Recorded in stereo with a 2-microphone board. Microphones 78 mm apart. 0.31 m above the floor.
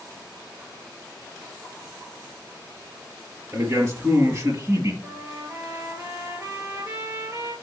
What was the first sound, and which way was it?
A man speaking, 40° right (ahead or behind).